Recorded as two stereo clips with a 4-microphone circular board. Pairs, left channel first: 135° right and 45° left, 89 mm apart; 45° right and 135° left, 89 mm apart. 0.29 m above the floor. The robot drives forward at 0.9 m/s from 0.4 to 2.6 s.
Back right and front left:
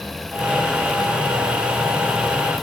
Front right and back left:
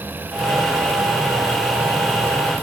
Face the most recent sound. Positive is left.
No sound to turn to.